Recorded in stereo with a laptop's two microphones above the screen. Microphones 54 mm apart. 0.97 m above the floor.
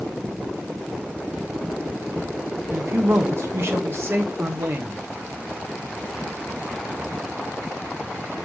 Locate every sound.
2.7 s a man speaking: 55° right (ahead or behind), 1.3 m